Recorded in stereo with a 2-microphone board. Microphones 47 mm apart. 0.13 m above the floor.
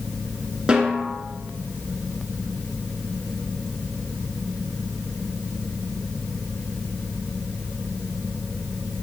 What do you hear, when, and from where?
0.7 s a snare drum: 15° right (ahead or behind), 1.4 m